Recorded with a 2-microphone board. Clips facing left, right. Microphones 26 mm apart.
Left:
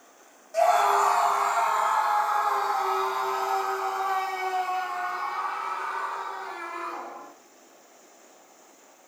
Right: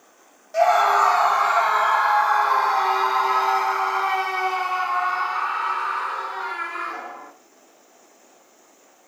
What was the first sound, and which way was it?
A scream, 25° right (ahead or behind).